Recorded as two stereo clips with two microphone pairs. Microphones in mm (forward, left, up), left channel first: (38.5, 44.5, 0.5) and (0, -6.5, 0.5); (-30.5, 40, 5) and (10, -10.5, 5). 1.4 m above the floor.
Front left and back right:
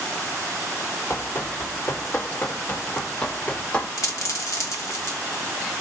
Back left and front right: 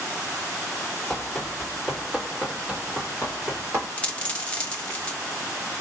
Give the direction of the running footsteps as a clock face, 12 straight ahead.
10 o'clock.